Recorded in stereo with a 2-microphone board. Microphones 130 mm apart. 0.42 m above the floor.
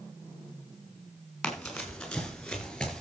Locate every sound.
1.4 s running footsteps: 5° left (ahead or behind), 6 m